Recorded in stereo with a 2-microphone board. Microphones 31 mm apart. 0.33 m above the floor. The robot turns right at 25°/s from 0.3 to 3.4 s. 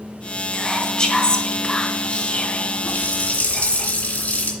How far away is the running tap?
About 2.5 m.